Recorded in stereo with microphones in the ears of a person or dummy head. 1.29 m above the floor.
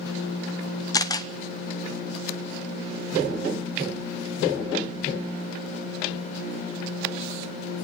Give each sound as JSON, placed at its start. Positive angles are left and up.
{"t": 0.9, "sound": "a camera shutter", "side_deg": 20, "distance_m": 0.7}